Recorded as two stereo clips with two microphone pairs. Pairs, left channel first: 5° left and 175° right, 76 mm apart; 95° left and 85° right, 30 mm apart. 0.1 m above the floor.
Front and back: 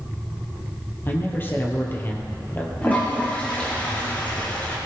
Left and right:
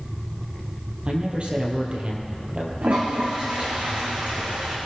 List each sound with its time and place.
1.1 s a man speaking: 50° right, 3 m
2.8 s a toilet flushing: 65° right, 3.5 m